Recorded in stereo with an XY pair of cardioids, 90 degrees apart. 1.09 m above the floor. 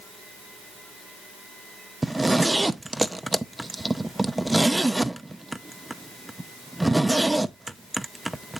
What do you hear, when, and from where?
2.0 s a zipper: 10° right, 0.6 m